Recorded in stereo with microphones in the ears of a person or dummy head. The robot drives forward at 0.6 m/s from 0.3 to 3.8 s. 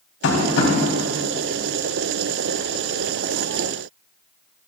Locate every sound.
0.2 s tapping: 65° left (ahead or behind), 3 m